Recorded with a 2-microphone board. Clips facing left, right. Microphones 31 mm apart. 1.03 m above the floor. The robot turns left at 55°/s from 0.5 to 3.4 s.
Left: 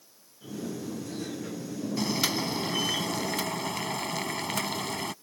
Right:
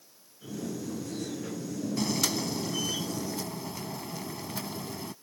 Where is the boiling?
170° left; by 5.1 s 95° left.